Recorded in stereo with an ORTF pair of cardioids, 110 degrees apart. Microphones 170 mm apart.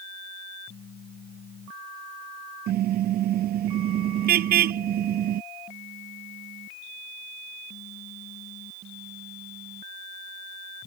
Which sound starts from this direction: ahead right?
A car horn, at 2.7 s.